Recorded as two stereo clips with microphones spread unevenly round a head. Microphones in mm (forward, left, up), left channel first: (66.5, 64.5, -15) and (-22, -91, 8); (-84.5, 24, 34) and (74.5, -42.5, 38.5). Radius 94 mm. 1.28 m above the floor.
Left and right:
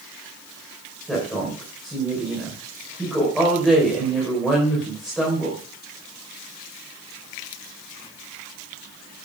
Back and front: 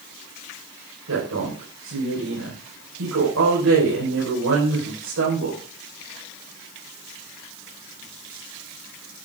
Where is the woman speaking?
30° right, 5 m.